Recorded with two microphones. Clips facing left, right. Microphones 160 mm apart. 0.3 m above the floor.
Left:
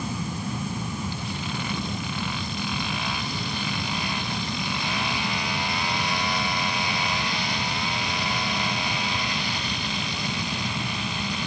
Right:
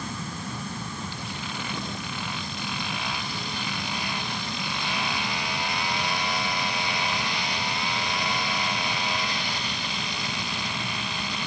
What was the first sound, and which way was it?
Only background noise.